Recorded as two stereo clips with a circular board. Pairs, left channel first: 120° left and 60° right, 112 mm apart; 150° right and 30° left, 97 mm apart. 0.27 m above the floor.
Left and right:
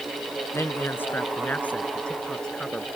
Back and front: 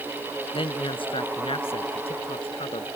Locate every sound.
0.5 s a man speaking: 175° right; by 2.9 s 155° right